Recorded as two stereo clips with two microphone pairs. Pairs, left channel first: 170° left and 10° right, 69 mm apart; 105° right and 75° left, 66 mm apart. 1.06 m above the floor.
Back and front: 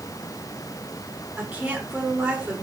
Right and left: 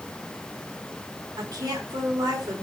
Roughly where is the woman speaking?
Ahead left.